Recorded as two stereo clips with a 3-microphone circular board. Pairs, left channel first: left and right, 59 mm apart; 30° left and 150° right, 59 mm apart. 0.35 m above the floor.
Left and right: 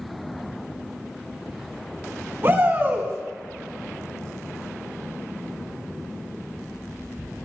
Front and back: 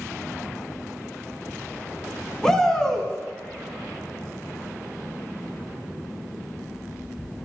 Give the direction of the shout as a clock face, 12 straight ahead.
2 o'clock.